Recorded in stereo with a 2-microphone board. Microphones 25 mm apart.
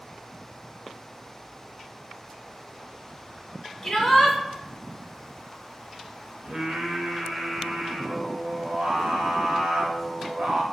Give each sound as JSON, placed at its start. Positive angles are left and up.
{"t": 3.8, "sound": "a shout", "side_deg": 20, "distance_m": 0.8}
{"t": 6.4, "sound": "singing", "side_deg": -60, "distance_m": 0.6}